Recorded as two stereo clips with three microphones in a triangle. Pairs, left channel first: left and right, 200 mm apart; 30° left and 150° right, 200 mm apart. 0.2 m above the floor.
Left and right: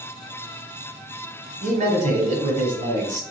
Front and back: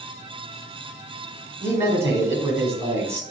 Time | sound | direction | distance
1.6 | a man speaking | 80° right | 1.3 m